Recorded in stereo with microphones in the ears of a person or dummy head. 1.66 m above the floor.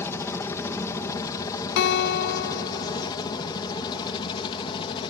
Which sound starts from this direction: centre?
A helicopter, at 0.0 s.